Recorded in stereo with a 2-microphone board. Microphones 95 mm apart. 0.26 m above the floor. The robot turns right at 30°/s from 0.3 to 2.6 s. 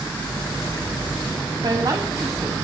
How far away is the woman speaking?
About 1.8 m.